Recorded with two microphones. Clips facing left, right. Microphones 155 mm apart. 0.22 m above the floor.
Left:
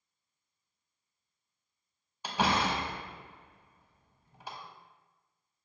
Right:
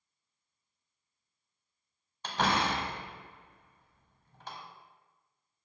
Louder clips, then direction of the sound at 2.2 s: Left 1 dB; 10° left (ahead or behind).